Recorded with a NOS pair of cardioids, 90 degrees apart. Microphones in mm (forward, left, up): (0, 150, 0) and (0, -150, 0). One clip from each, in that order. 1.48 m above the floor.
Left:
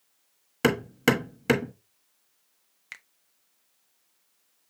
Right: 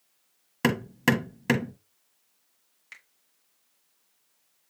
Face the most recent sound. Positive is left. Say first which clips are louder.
# left 4 dB
turn(degrees=30)